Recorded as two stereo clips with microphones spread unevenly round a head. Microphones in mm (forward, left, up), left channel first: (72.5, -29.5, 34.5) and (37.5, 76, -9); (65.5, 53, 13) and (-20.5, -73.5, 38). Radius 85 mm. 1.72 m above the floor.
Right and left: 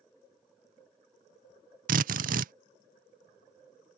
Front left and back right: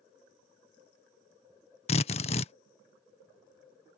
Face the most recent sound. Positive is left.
turn(degrees=115)